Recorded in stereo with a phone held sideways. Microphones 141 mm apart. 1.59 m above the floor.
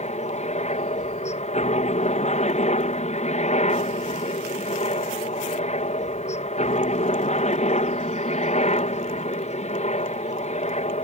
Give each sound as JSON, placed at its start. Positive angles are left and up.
{"t": 0.0, "sound": "a helicopter", "side_deg": 50}